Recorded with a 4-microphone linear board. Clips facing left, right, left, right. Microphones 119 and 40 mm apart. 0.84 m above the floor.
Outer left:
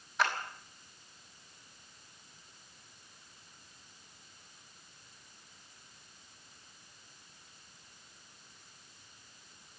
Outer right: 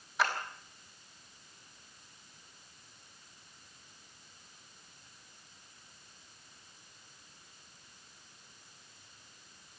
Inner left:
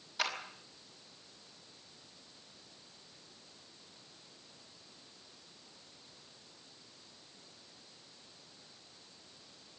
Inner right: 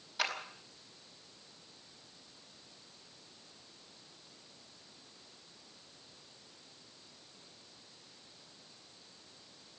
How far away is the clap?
About 5 m.